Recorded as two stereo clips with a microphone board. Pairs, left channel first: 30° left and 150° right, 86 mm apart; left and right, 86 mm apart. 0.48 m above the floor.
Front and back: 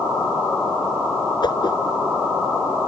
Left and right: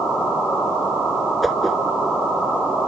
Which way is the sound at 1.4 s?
Straight ahead.